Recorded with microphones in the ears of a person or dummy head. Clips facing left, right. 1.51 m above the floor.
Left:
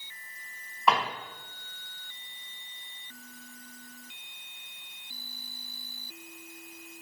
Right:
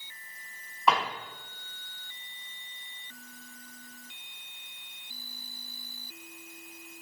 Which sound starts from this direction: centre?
A drawer, at 0.9 s.